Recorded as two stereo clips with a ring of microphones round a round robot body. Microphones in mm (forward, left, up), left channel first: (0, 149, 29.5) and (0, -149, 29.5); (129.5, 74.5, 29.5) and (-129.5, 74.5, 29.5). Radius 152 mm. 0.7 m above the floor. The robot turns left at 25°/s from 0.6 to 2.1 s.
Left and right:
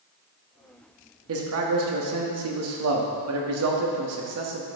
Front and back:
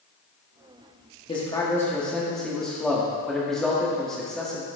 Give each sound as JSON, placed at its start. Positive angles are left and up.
{"t": 1.3, "sound": "a man speaking", "azimuth_deg": -65, "distance_m": 1.5}